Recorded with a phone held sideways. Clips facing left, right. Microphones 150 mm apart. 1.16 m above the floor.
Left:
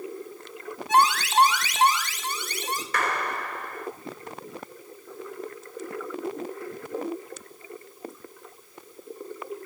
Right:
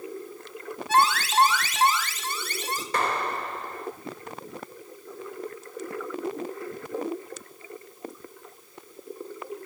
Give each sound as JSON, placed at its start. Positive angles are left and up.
{"t": 0.9, "sound": "an alarm", "side_deg": 15, "distance_m": 5.5}
{"t": 2.9, "sound": "a clap", "side_deg": -25, "distance_m": 4.5}